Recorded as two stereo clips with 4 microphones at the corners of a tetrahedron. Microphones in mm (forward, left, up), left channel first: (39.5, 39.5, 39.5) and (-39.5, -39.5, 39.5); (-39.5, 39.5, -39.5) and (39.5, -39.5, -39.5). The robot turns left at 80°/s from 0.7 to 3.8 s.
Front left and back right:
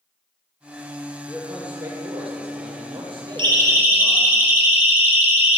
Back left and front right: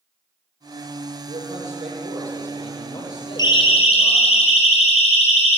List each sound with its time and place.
1.3 s a man speaking: 20° right, 8.5 m; by 4.3 s 135° left, 8.5 m
3.4 s a siren: 175° right, 5 m; by 5.6 s 155° left, 6.5 m